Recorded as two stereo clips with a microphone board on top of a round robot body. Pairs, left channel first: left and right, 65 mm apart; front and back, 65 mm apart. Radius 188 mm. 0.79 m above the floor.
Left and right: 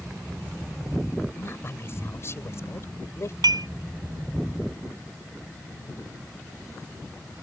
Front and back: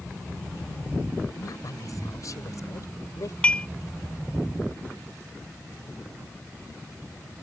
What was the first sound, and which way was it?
A woman speaking, 35° left.